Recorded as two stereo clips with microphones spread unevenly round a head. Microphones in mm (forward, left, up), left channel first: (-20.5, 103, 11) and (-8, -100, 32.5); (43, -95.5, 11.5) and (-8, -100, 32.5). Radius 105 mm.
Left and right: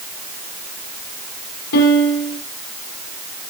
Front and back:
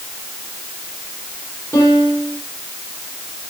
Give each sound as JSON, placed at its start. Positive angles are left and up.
{"t": 1.7, "sound": "a piano", "azimuth_deg": 95, "distance_m": 7.5}